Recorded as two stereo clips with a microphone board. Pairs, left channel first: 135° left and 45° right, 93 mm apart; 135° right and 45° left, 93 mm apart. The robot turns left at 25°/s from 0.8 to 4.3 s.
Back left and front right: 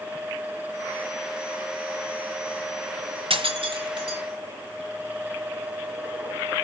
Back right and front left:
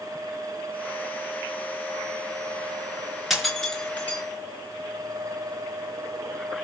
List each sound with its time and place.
3.3 s breaking glass: 45° right, 4 m; by 4.2 s 65° right, 4 m